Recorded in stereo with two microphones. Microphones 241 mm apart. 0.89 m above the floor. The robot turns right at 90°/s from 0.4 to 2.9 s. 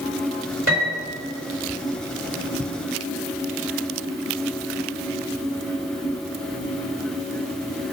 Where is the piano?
60° right, 2.5 m; by 1.1 s 20° right, 2.5 m.